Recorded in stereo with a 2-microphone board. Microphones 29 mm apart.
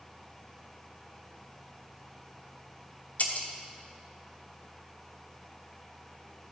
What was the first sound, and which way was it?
Breaking glass, 60° left (ahead or behind).